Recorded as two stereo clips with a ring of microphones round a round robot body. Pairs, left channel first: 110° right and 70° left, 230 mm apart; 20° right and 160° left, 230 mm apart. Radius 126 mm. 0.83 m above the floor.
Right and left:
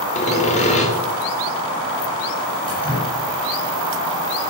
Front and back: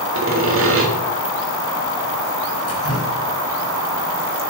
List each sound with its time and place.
0.1 s sawing: 175° right, 2.5 m
2.7 s dripping: 45° right, 6 m